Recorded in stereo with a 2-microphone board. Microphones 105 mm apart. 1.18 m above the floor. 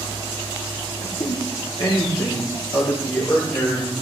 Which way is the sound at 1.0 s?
60° left (ahead or behind).